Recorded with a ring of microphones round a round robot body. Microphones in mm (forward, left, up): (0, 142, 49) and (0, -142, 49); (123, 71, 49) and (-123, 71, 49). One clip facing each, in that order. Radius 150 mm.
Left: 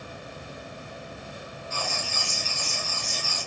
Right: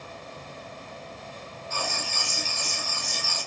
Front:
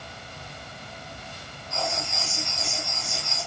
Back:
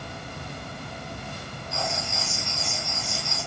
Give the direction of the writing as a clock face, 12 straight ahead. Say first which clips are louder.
Right 1 dB, front 1 dB; 3 o'clock.